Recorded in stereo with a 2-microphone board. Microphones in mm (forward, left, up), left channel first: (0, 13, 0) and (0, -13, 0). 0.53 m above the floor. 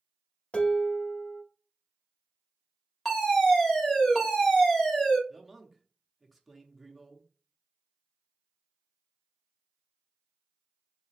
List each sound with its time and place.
0.5 s dishes clattering: 50° left (ahead or behind), 1.1 m
3.0 s a fire alarm: 20° left (ahead or behind), 1.6 m
5.3 s a man speaking: centre (ahead or behind), 0.8 m